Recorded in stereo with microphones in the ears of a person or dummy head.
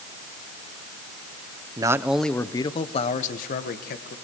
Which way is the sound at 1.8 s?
20° right (ahead or behind).